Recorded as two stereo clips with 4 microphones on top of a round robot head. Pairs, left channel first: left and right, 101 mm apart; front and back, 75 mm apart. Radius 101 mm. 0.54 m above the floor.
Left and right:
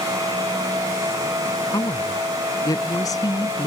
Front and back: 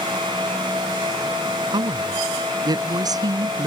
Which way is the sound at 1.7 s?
155° left.